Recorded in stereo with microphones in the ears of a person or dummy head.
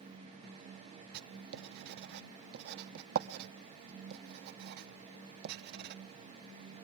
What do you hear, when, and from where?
1.1 s writing: 55° right (ahead or behind), 0.6 m